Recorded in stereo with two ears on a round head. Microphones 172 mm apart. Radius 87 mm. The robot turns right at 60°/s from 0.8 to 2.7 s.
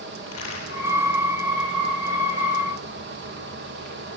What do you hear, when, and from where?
0.3 s a crack: 85° left, 10 m